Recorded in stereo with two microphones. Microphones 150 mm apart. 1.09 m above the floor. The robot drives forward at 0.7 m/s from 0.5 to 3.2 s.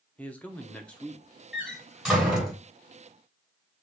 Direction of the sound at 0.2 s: 10° left (ahead or behind).